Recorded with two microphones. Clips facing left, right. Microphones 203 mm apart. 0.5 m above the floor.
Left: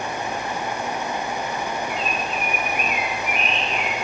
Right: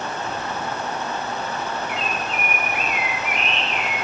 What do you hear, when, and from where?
1.9 s a bird: 20° right (ahead or behind), 1.1 m